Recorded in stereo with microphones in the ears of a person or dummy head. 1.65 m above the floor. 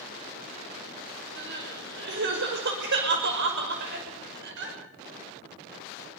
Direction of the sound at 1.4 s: 60° right (ahead or behind).